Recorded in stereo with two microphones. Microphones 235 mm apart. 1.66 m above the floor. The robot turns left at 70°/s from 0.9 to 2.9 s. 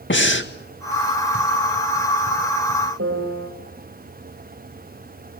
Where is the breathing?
50° left (ahead or behind), 1.8 m.